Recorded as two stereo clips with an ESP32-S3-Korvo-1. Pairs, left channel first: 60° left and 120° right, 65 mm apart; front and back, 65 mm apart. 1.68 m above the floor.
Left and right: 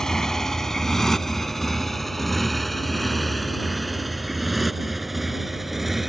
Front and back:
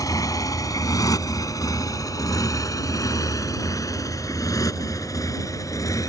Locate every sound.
0.0 s a motorcycle: 20° right; by 6.1 s 30° right